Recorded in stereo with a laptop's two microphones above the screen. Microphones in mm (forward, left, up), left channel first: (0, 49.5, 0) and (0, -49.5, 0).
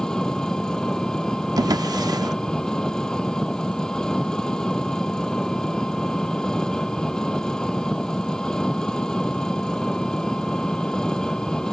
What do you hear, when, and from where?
0.0 s an engine running: 5° left (ahead or behind)
1.6 s a drawer: 40° right (ahead or behind)